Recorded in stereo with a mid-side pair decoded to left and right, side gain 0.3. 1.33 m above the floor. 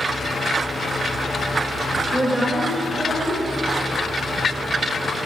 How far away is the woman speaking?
About 2.5 m.